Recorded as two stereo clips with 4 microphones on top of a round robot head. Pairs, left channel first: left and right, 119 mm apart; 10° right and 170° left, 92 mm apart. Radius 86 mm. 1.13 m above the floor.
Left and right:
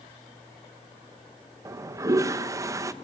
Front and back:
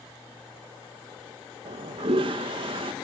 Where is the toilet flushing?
155° right, 1.0 m.